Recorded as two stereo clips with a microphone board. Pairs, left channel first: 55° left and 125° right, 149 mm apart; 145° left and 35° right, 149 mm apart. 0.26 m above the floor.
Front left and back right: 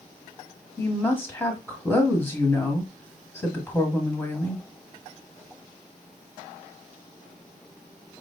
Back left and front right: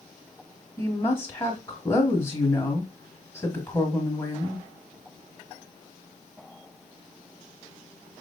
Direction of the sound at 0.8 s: 105° left.